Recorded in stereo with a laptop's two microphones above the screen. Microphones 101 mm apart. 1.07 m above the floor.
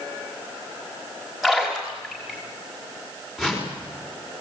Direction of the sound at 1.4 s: 5° right (ahead or behind).